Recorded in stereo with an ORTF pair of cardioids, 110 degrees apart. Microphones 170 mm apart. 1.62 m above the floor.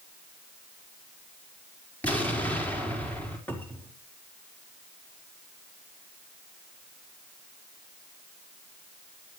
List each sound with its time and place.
2.0 s an explosion: 10° left, 4.5 m
3.5 s a cupboard door: 10° left, 3.5 m